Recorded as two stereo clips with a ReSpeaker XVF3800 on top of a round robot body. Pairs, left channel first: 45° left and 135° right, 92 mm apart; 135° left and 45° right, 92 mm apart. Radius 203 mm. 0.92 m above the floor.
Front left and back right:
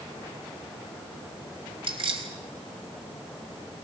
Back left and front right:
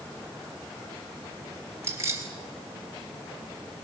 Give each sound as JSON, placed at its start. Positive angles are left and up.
{"t": 1.8, "sound": "keys jangling", "azimuth_deg": -105, "distance_m": 3.0}